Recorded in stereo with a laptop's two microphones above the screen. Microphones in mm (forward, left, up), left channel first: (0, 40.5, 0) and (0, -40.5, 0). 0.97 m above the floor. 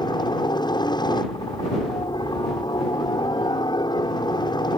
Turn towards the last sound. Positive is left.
turn(degrees=65)  # may be behind; listen again after turning